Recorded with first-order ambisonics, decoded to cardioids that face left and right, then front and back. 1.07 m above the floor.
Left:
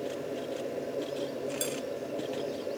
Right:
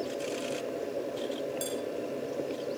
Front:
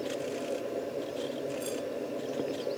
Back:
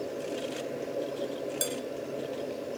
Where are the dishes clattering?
160° left, 4 m.